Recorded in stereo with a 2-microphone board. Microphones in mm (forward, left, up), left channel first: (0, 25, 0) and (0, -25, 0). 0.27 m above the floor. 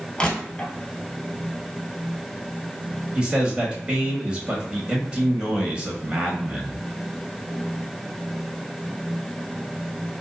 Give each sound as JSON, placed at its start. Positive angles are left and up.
{"t": 0.2, "sound": "crushing", "side_deg": 15, "distance_m": 1.1}
{"t": 3.1, "sound": "a man speaking", "side_deg": -20, "distance_m": 0.9}